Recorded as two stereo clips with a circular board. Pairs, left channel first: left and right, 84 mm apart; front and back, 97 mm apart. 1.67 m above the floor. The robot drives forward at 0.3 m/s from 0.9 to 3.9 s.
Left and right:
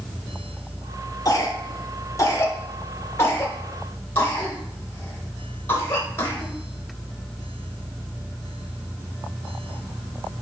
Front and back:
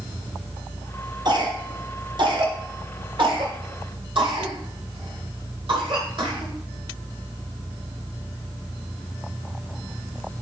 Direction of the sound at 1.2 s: 135° left.